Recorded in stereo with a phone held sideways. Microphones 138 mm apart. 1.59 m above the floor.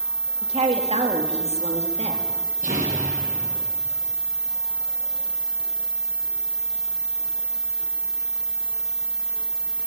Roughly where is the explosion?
Right.